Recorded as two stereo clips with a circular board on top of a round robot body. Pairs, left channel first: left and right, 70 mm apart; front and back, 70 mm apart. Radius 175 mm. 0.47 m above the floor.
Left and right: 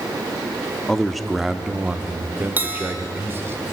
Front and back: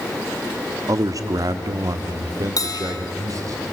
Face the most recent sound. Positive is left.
turn(degrees=-30)